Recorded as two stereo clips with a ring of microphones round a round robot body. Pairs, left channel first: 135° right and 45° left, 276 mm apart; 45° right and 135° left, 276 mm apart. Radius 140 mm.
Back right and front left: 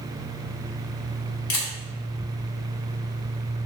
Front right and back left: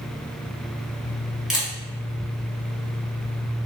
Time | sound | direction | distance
1.5 | a camera shutter | 135° right | 1.3 m